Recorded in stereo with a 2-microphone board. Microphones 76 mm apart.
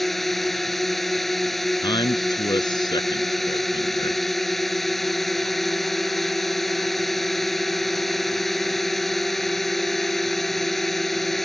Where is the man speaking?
65° left (ahead or behind).